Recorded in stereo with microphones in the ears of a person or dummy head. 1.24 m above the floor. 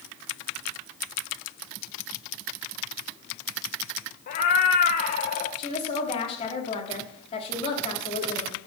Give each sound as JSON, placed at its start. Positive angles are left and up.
{"t": 4.3, "sound": "a cat meowing", "side_deg": 40, "distance_m": 1.2}
{"t": 5.6, "sound": "a woman speaking", "side_deg": 35, "distance_m": 2.0}